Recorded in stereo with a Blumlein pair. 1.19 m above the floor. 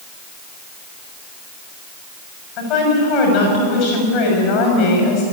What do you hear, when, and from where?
2.6 s a woman speaking: 40° left, 6.5 m